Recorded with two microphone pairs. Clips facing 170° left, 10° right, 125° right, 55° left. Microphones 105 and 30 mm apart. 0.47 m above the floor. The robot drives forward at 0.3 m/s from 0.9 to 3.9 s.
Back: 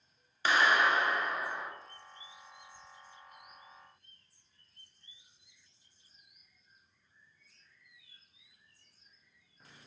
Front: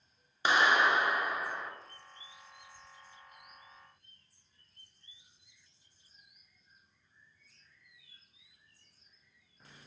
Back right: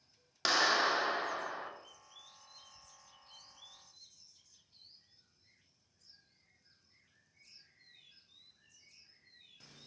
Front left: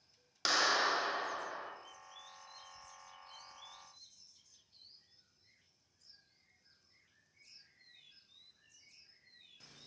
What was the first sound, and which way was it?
A clap, 55° right.